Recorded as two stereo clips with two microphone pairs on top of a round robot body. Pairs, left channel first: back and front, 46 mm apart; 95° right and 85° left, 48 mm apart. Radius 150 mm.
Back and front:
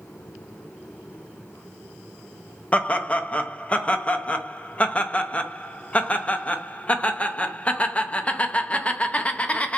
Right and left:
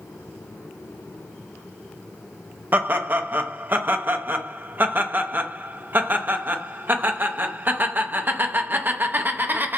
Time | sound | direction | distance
2.7 | laughter | 130° left | 0.7 m